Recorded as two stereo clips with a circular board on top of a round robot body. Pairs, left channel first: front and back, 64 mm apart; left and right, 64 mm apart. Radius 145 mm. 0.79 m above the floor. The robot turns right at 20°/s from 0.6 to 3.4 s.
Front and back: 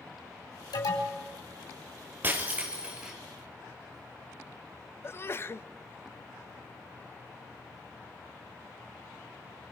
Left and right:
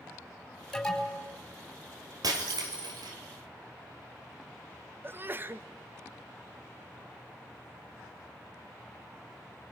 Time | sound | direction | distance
0.7 | an alarm | 5° left | 4.5 m
2.2 | breaking glass | 120° right | 2.5 m
5.0 | a sneeze | 40° right | 1.1 m